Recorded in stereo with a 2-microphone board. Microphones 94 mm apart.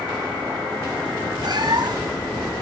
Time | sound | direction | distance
1.4 | a cat meowing | 55° right (ahead or behind) | 2.5 m